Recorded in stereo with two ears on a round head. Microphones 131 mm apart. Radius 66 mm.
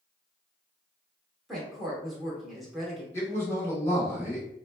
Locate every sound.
1.5 s a woman speaking: centre (ahead or behind), 0.9 m
3.1 s a man speaking: 20° left (ahead or behind), 0.8 m